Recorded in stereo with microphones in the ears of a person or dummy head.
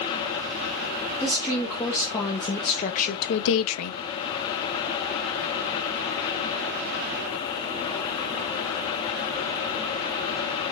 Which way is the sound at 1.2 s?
10° left (ahead or behind).